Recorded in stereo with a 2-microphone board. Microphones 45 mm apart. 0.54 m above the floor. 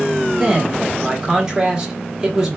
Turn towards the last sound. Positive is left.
turn(degrees=-20)  # may be behind; listen again after turning